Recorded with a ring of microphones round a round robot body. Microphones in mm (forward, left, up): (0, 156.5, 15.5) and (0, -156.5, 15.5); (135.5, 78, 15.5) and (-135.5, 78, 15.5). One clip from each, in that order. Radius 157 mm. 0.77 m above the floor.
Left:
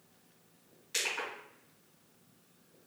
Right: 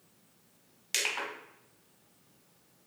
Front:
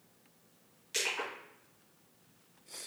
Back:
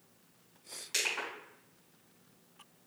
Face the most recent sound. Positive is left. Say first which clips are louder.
# right 3 dB, back 1 dB
turn(degrees=-105)